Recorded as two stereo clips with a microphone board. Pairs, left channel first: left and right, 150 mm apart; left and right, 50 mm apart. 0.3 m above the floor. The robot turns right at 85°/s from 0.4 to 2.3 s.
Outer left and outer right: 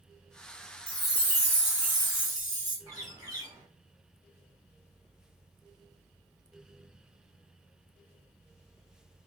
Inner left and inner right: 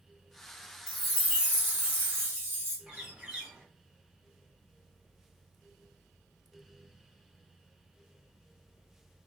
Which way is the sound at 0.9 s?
165° left.